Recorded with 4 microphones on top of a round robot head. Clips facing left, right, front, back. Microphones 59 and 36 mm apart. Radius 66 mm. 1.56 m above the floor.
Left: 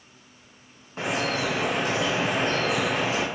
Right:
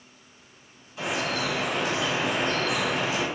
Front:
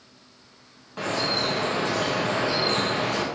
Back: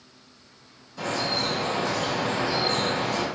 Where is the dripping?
40° left, 0.9 m.